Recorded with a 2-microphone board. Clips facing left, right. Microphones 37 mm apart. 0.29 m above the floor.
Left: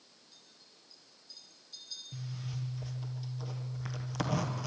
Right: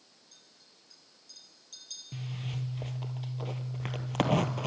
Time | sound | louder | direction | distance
0.3 | a clink | even | 80° right | 5 m
2.1 | a zipper | right 4 dB | 50° right (ahead or behind) | 1.2 m